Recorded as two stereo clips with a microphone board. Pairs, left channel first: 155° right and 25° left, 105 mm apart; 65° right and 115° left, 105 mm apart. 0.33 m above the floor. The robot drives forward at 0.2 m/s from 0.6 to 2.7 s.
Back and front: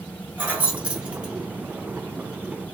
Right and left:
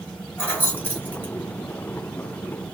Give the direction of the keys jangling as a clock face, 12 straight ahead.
1 o'clock.